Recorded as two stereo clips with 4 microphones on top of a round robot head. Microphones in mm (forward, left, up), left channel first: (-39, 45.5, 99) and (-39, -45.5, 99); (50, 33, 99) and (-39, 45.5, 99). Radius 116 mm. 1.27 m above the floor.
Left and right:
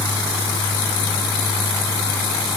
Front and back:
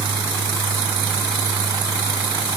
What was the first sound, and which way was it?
Only background noise.